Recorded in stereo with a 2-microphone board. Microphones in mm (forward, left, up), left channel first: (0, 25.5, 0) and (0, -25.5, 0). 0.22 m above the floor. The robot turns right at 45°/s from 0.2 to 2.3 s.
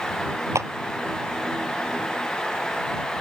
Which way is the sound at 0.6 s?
75° right (ahead or behind).